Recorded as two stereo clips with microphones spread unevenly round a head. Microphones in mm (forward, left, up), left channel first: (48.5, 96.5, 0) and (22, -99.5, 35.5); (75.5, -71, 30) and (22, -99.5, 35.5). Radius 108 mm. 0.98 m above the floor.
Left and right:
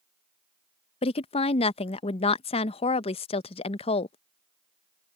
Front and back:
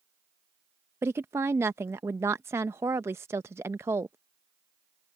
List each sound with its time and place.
1.0 s a woman speaking: 140° left